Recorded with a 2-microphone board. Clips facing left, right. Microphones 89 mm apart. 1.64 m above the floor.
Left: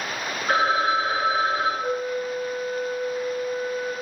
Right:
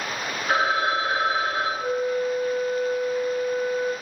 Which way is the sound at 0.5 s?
40° left (ahead or behind).